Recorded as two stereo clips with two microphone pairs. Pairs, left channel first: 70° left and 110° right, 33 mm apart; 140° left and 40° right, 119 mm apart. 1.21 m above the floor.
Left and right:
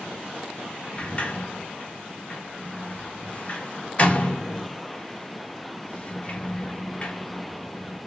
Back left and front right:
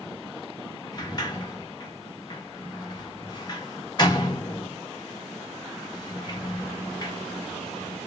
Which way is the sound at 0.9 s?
100° left.